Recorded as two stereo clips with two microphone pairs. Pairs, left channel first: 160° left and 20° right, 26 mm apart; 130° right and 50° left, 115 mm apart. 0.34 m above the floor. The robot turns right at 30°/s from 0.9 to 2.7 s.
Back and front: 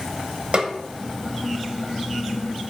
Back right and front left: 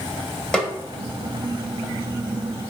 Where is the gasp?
No gasp in this recording.